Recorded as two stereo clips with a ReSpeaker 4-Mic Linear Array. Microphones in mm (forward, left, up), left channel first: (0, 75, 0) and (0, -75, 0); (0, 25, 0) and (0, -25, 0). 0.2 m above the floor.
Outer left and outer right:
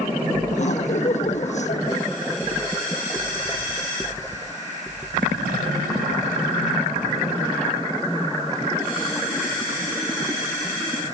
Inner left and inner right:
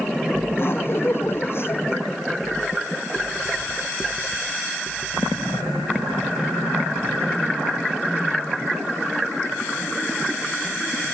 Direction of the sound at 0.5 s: 50° left (ahead or behind).